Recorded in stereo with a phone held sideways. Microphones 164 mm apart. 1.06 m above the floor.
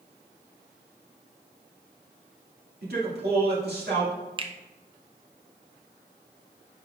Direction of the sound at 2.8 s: 75° right (ahead or behind).